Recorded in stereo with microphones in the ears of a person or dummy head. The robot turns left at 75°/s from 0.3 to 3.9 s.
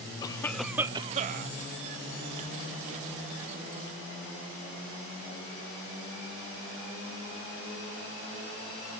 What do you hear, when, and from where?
0.2 s a cough: 25° left, 0.8 m; by 1.5 s 70° right, 0.8 m